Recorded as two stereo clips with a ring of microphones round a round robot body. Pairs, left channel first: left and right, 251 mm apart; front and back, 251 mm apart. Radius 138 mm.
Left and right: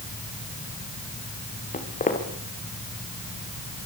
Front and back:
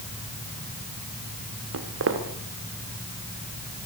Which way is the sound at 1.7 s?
150° left.